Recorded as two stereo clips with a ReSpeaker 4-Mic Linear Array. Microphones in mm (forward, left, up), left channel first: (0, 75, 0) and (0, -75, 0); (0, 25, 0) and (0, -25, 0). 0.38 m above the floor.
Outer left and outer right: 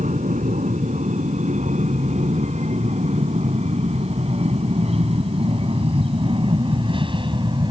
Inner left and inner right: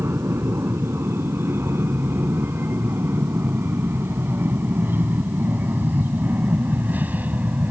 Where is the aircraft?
55° right (ahead or behind); by 7.7 s 30° right (ahead or behind).